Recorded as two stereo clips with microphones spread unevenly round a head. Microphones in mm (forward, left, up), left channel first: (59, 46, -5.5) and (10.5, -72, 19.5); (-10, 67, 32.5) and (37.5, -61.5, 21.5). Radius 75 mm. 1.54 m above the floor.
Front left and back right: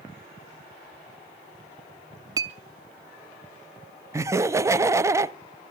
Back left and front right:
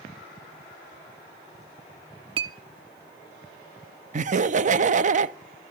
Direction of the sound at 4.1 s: 40° right.